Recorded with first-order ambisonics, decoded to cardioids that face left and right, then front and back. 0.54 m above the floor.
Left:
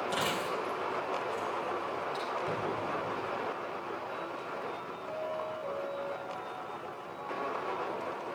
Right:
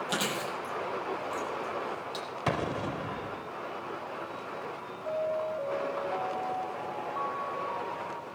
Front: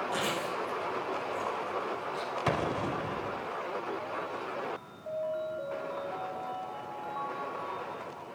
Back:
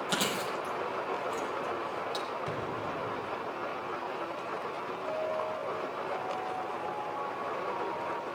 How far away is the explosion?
About 0.8 m.